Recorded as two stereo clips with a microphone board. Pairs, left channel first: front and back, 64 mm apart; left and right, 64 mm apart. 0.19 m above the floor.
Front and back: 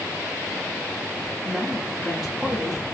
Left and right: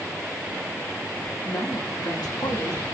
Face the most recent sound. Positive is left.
turn(degrees=95)